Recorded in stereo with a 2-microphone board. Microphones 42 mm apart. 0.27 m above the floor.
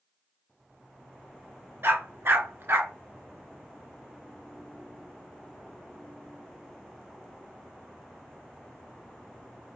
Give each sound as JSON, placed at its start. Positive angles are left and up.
{"t": 1.8, "sound": "a dog barking", "side_deg": -70, "distance_m": 1.0}